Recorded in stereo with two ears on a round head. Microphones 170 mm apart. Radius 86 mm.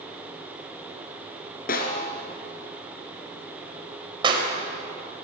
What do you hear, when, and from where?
1.7 s a snare drum: 45° left (ahead or behind), 3 m
4.2 s a clap: 25° right (ahead or behind), 3.5 m